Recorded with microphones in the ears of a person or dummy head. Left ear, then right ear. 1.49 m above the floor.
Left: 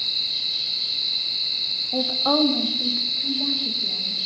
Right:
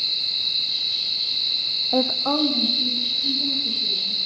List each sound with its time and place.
1.9 s a woman speaking: 50° right (ahead or behind), 0.5 m; by 4.2 s 55° left (ahead or behind), 3.5 m